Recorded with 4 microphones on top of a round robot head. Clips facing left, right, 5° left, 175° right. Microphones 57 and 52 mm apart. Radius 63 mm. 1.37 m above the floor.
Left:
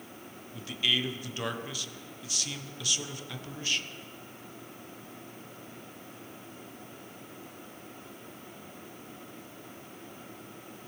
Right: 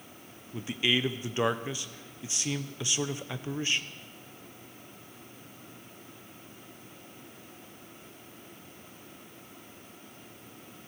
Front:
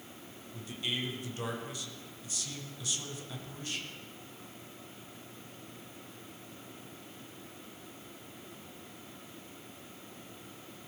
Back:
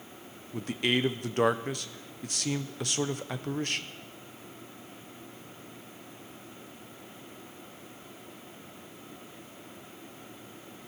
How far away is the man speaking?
About 0.8 m.